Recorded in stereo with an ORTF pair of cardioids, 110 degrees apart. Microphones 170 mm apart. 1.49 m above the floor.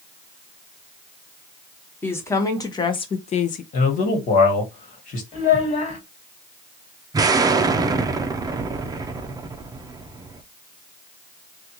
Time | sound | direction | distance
2.0 | a woman speaking | 10° left | 1.4 m
3.7 | a man speaking | 50° left | 1.6 m
5.3 | a child speaking | 45° left | 1.9 m
7.1 | an explosion | 25° right | 0.6 m